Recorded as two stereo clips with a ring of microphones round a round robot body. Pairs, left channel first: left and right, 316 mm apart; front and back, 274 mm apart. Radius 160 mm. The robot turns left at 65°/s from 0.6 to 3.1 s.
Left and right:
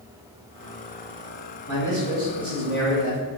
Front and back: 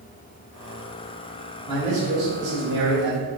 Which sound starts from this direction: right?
A man speaking, at 1.7 s.